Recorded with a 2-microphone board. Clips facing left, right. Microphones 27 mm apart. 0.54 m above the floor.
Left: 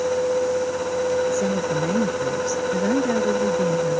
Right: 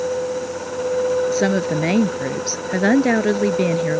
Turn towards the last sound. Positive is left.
turn(degrees=-55)  # may be behind; listen again after turning